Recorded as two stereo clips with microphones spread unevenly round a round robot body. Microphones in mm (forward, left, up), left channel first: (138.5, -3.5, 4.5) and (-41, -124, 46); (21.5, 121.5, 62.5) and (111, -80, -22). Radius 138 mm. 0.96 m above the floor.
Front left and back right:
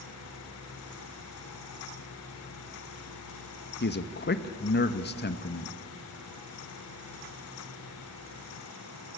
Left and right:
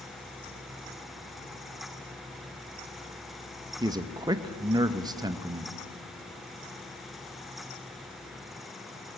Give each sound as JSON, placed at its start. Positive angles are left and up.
{"t": 3.8, "sound": "a man speaking", "azimuth_deg": 0, "distance_m": 1.0}